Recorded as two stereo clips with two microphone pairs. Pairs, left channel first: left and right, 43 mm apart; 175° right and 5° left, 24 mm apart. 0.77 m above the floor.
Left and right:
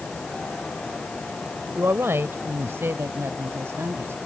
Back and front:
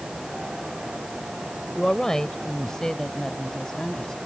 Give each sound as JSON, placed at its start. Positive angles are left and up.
{"t": 1.8, "sound": "a woman speaking", "azimuth_deg": -110}